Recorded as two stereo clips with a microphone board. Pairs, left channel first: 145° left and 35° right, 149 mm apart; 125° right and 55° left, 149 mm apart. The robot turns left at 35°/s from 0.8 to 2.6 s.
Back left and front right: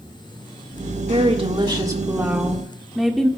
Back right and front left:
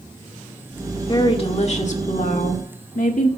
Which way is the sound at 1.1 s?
70° right.